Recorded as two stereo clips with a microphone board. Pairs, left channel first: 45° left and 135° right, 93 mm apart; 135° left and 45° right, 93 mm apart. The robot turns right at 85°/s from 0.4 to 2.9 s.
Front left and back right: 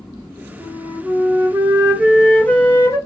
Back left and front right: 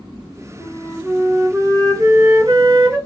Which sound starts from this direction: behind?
A flute, at 0.6 s.